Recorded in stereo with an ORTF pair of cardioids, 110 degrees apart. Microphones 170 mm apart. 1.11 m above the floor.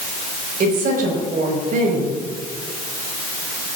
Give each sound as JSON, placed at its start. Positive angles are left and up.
{"t": 0.6, "sound": "a woman speaking", "azimuth_deg": -55, "distance_m": 5.0}